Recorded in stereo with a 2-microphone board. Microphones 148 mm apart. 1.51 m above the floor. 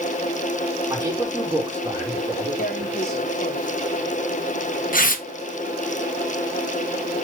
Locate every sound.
0.9 s a man speaking: 20° right (ahead or behind), 5.5 m
2.6 s tearing paper: 70° left (ahead or behind), 1.0 m